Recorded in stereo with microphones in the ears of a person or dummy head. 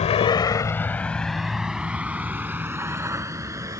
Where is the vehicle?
35° left (ahead or behind); by 3.8 s 15° right (ahead or behind).